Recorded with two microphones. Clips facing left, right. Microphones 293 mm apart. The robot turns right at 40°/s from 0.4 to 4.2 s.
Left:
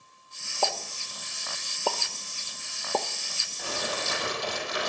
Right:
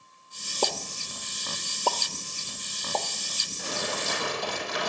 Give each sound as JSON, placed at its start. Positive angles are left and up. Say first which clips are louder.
{"t": 0.6, "sound": "a pop", "louder": "right 2 dB", "side_deg": -45, "distance_m": 0.8}
{"t": 3.6, "sound": "crumpling", "louder": "even", "side_deg": -40, "distance_m": 5.0}